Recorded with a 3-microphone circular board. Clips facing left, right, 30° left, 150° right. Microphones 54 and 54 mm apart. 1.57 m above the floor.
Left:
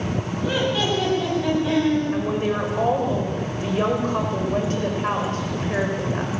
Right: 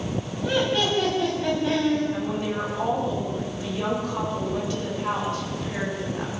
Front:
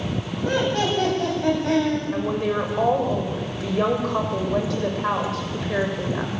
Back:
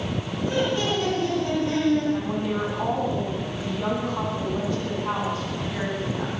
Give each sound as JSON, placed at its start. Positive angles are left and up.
{"t": 0.4, "sound": "laughter", "azimuth_deg": 5, "distance_m": 9.5}
{"t": 2.1, "sound": "a woman speaking", "azimuth_deg": 40, "distance_m": 6.5}